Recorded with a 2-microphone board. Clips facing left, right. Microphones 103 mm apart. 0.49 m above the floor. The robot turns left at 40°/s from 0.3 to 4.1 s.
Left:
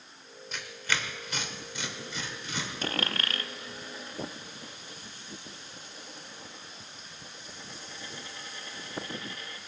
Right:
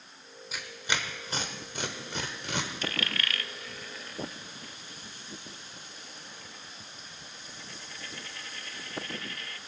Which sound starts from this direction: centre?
Tearing paper, at 0.5 s.